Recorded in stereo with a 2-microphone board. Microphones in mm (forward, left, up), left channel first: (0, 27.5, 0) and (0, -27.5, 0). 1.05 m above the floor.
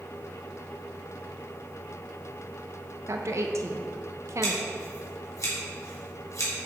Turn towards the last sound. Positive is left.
turn(degrees=75)  # may be behind; listen again after turning